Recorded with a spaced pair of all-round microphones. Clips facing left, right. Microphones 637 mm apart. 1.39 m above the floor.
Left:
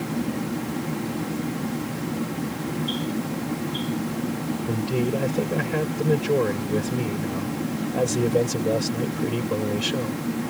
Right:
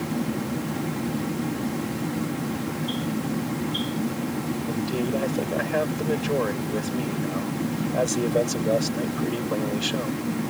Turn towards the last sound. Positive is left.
turn(degrees=55)  # may be behind; listen again after turning